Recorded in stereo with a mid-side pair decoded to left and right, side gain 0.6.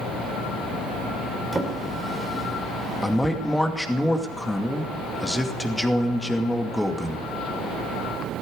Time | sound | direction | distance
1.5 | a drawer | 20° right | 3 m
3.0 | a man speaking | 5° left | 2.5 m